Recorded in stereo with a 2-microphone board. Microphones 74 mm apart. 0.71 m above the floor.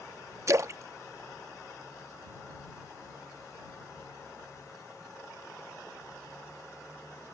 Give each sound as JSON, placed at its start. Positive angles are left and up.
{"t": 0.5, "sound": "a splash", "side_deg": -45}